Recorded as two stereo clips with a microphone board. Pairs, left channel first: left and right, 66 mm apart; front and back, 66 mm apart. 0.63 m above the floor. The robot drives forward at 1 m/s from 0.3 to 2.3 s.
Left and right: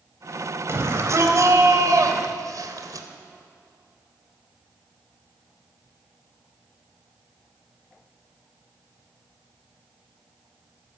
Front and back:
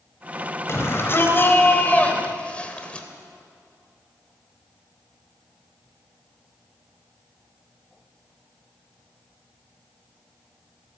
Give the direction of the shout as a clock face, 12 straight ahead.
2 o'clock.